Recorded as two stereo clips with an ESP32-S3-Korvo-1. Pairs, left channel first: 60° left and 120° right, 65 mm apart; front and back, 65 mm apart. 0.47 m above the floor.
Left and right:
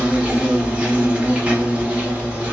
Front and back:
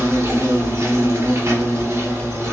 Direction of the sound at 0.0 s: 175° left.